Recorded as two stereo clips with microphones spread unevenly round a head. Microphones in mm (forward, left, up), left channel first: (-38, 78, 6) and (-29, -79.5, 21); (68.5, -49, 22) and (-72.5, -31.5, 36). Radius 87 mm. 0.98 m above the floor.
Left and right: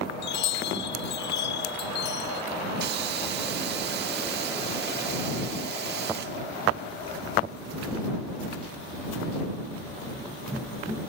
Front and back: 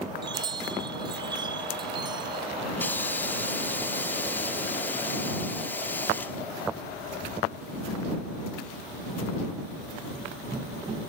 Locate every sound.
0.2 s a chime: 105° left
2.8 s a hiss: 80° right